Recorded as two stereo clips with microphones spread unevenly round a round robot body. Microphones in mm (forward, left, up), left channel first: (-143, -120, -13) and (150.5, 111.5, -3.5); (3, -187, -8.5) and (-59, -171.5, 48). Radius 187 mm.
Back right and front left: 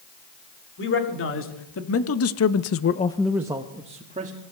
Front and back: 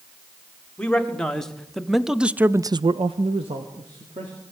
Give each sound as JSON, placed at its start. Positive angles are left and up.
{"t": 0.8, "sound": "a man speaking", "azimuth_deg": -85, "distance_m": 3.0}